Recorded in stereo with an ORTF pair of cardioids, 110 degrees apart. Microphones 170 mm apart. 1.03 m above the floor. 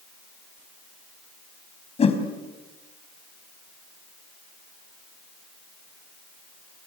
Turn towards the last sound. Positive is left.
turn(degrees=35)